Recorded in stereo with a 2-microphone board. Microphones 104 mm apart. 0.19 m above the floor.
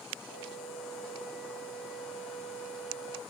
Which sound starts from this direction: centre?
A flute, at 0.2 s.